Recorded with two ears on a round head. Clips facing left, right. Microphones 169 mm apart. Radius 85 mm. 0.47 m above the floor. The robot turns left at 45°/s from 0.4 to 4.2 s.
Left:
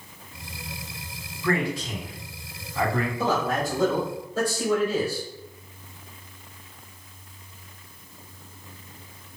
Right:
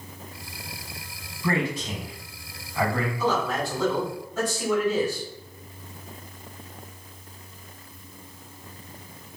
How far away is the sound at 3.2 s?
About 1.8 m.